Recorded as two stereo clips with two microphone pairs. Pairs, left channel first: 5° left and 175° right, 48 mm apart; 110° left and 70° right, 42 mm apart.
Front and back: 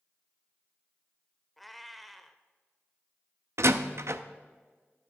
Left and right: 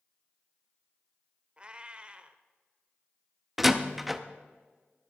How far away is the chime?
No chime in this recording.